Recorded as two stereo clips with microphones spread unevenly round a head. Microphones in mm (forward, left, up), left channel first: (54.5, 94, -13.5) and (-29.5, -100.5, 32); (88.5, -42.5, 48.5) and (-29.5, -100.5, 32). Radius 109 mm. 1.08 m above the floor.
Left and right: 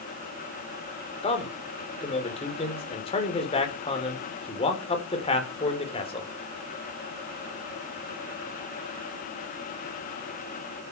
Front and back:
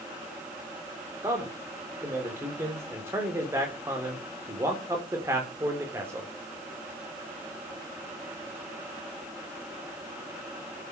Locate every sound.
1.2 s a man speaking: 130° left, 4.5 m